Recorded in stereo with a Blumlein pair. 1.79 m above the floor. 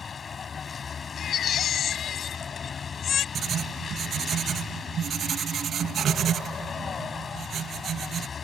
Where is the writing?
25° right.